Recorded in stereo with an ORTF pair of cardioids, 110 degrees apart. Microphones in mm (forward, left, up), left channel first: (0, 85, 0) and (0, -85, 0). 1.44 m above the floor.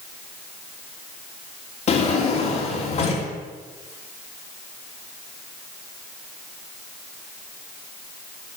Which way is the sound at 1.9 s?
45° left.